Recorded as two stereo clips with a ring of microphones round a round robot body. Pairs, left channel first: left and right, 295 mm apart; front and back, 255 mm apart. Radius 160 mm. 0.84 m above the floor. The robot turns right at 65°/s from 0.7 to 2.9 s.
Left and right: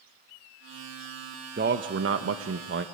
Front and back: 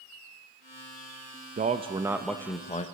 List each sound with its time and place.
1.6 s a man speaking: 135° right, 0.9 m; by 2.9 s 55° right, 0.9 m